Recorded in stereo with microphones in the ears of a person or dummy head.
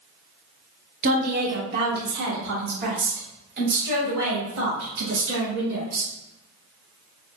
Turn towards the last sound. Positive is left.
turn(degrees=-70)  # may be behind; listen again after turning